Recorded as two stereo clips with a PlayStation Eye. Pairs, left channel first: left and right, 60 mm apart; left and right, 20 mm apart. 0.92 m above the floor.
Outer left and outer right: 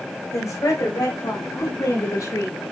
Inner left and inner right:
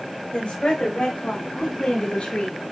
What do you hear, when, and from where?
0.3 s a woman speaking: 70° left (ahead or behind), 4.5 m; by 2.6 s 65° left (ahead or behind), 2.0 m